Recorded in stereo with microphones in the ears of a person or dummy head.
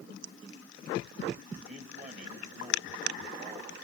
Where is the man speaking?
40° right (ahead or behind), 3 m.